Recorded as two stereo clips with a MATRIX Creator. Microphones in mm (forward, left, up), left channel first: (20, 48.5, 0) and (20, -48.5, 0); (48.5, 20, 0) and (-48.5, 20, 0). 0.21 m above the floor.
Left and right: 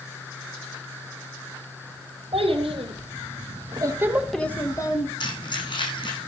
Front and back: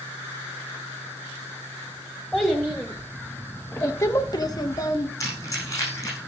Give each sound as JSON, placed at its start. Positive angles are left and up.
{"t": 2.3, "sound": "a child speaking", "azimuth_deg": -95, "distance_m": 2.5}
{"t": 5.2, "sound": "keys jangling", "azimuth_deg": 60, "distance_m": 8.5}